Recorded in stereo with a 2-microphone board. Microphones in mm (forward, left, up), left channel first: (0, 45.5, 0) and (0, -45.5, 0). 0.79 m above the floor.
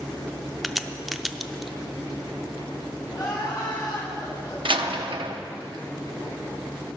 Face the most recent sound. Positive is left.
turn(degrees=-70)  # may be behind; listen again after turning